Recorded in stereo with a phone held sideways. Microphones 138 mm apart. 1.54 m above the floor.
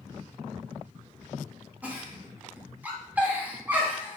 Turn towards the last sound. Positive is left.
turn(degrees=-10)  # may be behind; listen again after turning